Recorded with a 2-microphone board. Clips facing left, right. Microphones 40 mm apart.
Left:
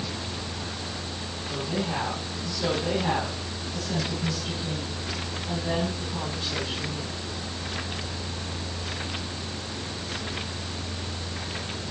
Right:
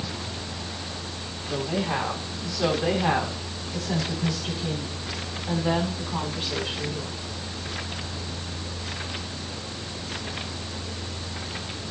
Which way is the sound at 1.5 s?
40° right (ahead or behind).